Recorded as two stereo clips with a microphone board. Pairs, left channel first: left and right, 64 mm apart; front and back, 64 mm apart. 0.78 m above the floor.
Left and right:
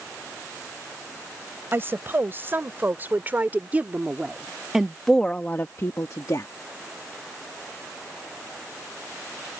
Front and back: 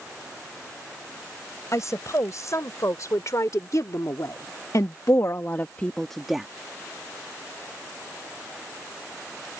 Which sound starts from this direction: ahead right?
A woman speaking, at 1.7 s.